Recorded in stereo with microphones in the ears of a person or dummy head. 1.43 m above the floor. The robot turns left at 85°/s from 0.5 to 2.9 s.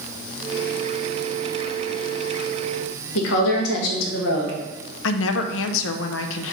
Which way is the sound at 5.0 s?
75° left (ahead or behind).